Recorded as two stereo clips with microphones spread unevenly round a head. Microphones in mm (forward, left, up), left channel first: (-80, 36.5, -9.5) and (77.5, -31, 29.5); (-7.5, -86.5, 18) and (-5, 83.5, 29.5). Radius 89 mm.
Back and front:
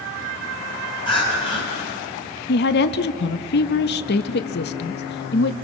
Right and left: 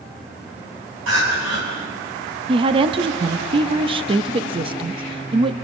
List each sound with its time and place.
1.1 s crying: 90° left, 8.5 m
2.5 s a woman speaking: 150° left, 0.9 m